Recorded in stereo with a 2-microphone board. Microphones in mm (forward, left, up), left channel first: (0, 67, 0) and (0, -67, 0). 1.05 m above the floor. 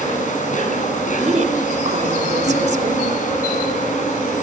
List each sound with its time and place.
0.0 s an insect: 80° left, 6 m
1.2 s a woman speaking: 60° right (ahead or behind), 2.5 m